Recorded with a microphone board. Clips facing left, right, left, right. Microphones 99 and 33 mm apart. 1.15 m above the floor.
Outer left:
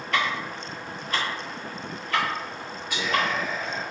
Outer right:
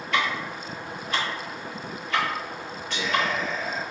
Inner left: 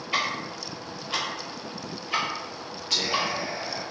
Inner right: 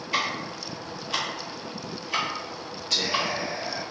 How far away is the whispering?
About 1.8 m.